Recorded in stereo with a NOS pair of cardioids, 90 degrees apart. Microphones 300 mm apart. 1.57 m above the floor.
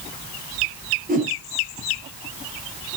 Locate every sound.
1.1 s a whoosh: 30° right, 5 m